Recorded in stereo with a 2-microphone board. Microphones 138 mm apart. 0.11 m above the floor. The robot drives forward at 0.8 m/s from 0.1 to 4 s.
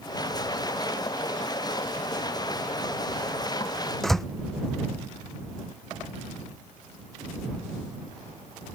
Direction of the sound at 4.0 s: Centre (ahead or behind).